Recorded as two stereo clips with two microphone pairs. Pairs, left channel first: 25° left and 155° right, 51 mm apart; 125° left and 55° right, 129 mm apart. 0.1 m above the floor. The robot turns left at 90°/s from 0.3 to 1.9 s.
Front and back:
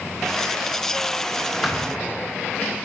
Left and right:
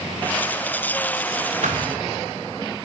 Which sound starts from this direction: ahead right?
A thud, at 1.6 s.